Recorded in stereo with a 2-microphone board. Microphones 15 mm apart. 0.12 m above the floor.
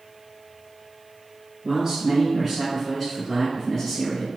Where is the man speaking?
25° right (ahead or behind), 1.5 m; by 4.3 s 30° left (ahead or behind), 1.7 m.